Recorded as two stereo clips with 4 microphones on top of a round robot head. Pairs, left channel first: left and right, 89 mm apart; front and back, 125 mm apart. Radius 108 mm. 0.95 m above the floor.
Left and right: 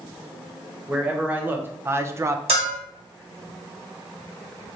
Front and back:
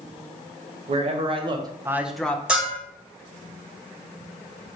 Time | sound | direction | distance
0.9 | a man speaking | 165° right | 0.9 m
2.5 | a bell | 95° right | 1.4 m